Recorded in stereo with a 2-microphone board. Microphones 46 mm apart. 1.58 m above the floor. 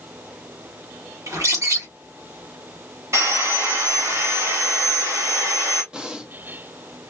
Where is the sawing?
75° right (ahead or behind), 3.5 m.